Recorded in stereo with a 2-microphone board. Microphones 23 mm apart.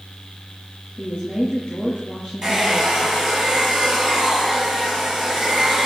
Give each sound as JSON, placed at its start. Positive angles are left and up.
{"t": 1.0, "sound": "a woman speaking", "side_deg": 15, "distance_m": 7.5}
{"t": 2.4, "sound": "a hair dryer", "side_deg": -25, "distance_m": 8.0}